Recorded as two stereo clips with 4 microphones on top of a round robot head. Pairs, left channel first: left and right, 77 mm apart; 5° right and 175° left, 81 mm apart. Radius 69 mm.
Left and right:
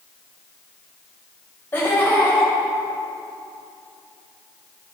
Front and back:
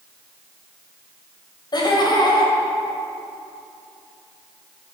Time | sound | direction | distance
1.7 | laughter | 20° left | 2.5 m